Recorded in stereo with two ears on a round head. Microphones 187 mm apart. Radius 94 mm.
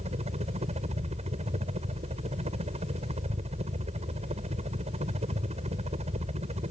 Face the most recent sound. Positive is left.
turn(degrees=-30)  # may be behind; listen again after turning